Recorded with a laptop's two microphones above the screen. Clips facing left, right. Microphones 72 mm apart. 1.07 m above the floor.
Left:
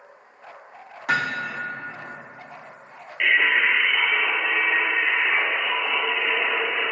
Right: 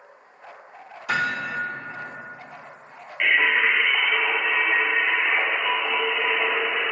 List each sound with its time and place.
1.1 s hammering: 60° left (ahead or behind), 0.9 m
3.2 s singing: 20° right (ahead or behind), 0.9 m